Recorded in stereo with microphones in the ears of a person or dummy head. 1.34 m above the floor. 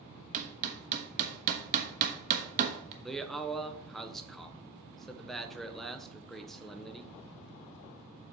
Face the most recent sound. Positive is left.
turn(degrees=0)  # may be behind; listen again after turning